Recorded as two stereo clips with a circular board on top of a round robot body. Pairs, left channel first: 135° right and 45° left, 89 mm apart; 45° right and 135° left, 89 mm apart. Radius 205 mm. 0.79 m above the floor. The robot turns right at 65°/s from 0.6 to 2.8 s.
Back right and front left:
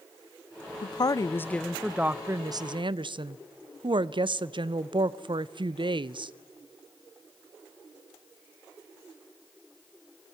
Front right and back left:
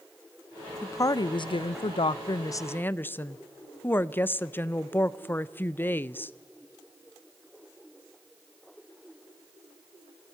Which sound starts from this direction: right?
A woman speaking, at 0.8 s.